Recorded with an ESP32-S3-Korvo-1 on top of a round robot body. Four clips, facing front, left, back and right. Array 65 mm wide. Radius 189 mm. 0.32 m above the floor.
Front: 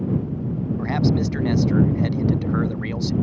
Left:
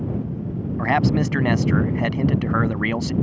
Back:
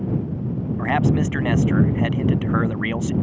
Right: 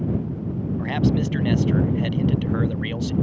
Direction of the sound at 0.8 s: 110° left.